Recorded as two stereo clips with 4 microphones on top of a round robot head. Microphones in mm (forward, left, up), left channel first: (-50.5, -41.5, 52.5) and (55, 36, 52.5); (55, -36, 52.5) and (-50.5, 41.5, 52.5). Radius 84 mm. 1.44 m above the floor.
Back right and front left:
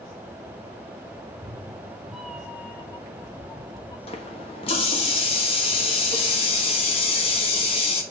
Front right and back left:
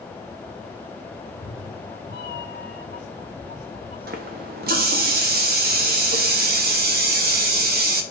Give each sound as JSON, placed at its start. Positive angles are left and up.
{"t": 1.2, "sound": "a cat meowing", "azimuth_deg": -20, "distance_m": 1.0}
{"t": 4.1, "sound": "a running tap", "azimuth_deg": 165, "distance_m": 1.4}